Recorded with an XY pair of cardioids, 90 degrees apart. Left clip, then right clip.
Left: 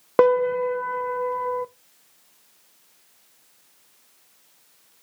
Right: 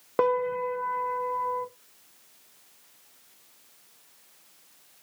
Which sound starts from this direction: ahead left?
A piano, at 0.2 s.